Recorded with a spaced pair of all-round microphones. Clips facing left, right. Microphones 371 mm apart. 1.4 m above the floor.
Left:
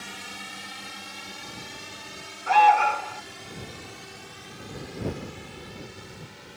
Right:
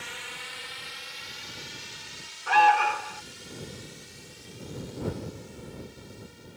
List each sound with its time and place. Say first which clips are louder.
0.0 s a drone: left 3 dB; 55° left (ahead or behind); by 6.6 s 75° left (ahead or behind)
2.5 s an alarm: left 3 dB; 25° right (ahead or behind)